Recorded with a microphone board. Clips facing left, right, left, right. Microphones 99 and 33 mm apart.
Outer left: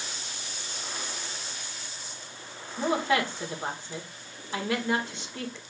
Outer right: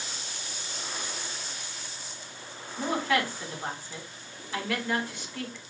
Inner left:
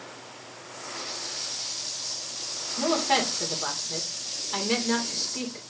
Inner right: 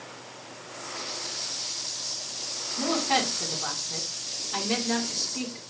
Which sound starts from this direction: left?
A woman speaking, at 2.8 s.